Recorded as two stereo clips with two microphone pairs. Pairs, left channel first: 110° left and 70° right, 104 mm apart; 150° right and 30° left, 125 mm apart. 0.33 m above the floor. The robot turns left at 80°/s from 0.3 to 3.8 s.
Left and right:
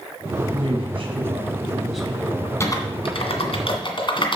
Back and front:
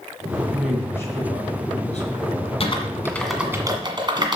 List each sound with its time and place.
0.5 s a man speaking: 40° right, 3 m; by 2.5 s 160° left, 3 m
2.6 s typing on a keyboard: 175° left, 1.7 m; by 4.4 s 80° left, 1.7 m